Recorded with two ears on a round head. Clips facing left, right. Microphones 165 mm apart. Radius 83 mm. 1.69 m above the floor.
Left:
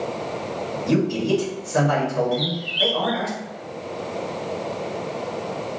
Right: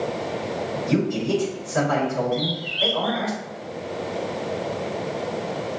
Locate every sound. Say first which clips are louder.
0.9 s a man speaking: left 2 dB; 90° left, 2.5 m
2.3 s a bird: left 1 dB; 40° left (ahead or behind), 1.6 m